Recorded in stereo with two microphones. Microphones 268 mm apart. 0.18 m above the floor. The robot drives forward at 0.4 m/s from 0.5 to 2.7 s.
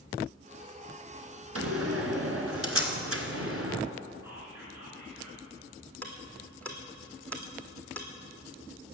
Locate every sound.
1.6 s a door slam: 60° right (ahead or behind), 1.7 m
4.2 s whispering: 10° right (ahead or behind), 3 m
6.0 s ticking: 5° left (ahead or behind), 2 m